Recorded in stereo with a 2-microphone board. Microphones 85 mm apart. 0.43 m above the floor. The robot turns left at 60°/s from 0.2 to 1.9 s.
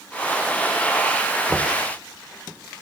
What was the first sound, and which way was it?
Knocking, 5° left (ahead or behind).